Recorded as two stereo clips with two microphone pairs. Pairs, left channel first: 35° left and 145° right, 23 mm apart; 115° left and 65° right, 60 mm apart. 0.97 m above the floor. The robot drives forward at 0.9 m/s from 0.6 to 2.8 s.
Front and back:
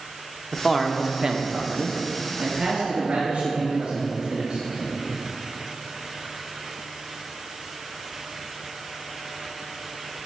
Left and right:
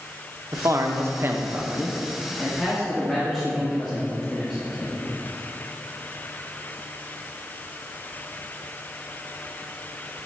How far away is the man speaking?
About 0.9 m.